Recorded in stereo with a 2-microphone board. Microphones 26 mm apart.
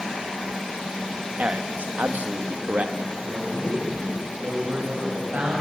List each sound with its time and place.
1.4 s a man speaking: 75° right (ahead or behind), 1.7 m; by 3.1 s 60° right (ahead or behind), 2.0 m
3.2 s a man speaking: 70° right (ahead or behind), 7.5 m